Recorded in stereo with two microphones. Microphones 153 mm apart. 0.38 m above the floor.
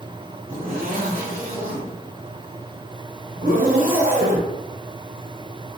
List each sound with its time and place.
0.5 s a zipper: 65° right (ahead or behind), 1.6 m